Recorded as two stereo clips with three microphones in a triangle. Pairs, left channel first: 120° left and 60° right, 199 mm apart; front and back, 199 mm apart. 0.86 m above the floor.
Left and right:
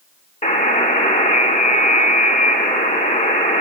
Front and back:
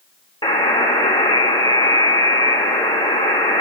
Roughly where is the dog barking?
I don't hear a dog barking.